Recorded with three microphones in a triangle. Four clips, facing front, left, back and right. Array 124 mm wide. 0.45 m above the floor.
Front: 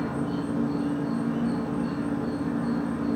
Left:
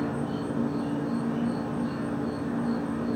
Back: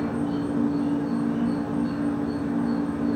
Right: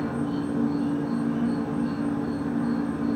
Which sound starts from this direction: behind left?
An insect, at 0.0 s.